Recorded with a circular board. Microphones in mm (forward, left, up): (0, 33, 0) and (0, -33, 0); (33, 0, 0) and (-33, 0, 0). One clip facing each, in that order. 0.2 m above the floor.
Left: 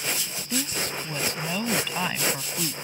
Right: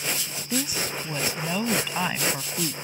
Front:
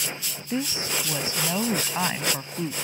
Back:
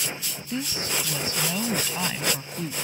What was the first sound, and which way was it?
A woman speaking, 20° right.